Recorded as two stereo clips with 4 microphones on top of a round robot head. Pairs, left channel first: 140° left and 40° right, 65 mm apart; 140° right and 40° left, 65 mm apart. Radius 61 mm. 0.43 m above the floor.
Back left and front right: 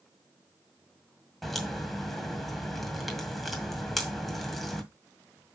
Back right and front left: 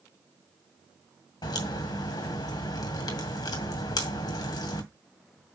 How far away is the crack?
About 2 m.